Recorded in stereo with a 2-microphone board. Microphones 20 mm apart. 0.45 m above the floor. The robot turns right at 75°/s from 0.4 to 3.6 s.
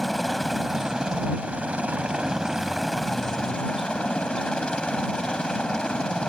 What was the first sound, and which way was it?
A helicopter, 170° left.